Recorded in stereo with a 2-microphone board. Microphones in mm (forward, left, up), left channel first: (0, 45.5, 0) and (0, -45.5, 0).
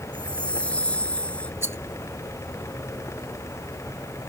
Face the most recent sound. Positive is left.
turn(degrees=-30)  # may be behind; listen again after turning